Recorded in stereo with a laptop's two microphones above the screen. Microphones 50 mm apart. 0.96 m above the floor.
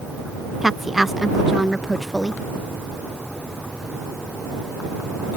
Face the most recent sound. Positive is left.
turn(degrees=-5)  # may be behind; listen again after turning